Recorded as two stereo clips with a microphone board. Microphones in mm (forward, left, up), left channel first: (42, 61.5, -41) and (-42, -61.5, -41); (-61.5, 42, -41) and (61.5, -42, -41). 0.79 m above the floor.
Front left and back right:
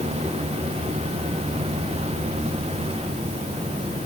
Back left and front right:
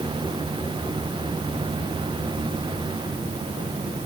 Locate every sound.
Only background noise.